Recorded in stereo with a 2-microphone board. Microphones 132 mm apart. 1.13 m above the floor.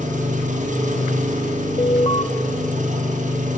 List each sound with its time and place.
0.0 s an engine running: 70° right (ahead or behind), 2.5 m
1.8 s an alarm: 45° left (ahead or behind), 1.0 m